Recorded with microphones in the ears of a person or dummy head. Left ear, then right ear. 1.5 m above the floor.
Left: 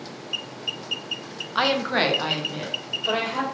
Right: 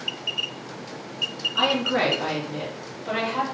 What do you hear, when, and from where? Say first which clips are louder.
1.6 s a woman speaking: left 1 dB; 50° left (ahead or behind), 0.6 m; by 3.4 s 70° left (ahead or behind), 1.7 m